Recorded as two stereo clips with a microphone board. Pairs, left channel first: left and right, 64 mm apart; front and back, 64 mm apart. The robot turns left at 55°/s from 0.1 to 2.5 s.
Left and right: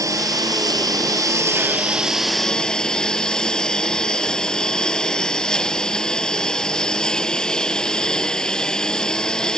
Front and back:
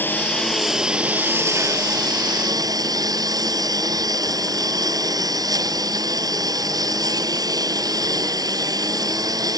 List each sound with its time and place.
0.0 s a lawn mower: 60° right; by 9.6 s 170° left